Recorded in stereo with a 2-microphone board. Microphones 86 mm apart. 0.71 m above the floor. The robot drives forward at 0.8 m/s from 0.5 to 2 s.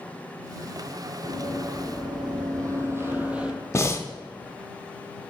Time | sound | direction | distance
1.2 | running footsteps | 70° right (ahead or behind) | 2 m
3.7 | breathing | 35° left (ahead or behind) | 0.5 m